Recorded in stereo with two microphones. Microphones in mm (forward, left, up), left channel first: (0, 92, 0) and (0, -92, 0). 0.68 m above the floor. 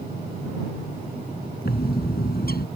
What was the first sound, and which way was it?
A bird, 60° left (ahead or behind).